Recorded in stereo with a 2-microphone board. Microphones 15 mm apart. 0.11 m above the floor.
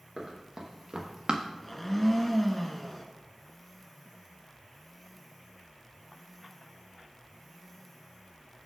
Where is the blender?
15° left (ahead or behind), 0.7 m.